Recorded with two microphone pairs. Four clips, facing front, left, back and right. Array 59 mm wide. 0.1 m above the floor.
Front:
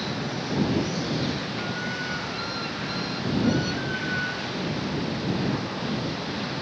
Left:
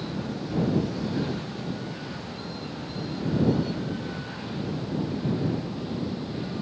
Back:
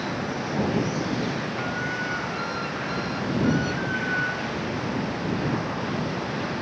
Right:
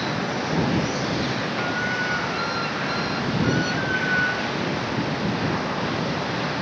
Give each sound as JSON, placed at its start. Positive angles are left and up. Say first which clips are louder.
{"t": 0.0, "sound": "running water", "louder": "right 7 dB, back 2 dB", "azimuth_deg": -115}